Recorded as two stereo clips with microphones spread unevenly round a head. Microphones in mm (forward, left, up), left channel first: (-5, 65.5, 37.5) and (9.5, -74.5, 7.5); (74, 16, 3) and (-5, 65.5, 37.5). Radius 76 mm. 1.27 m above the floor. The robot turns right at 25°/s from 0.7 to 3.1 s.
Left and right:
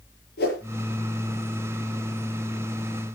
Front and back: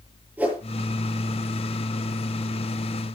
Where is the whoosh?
75° left, 8 m.